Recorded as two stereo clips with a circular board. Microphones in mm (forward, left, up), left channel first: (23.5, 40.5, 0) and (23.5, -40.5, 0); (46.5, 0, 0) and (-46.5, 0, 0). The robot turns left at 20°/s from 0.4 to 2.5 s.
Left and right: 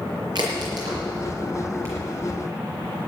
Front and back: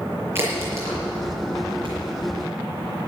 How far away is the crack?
About 6 m.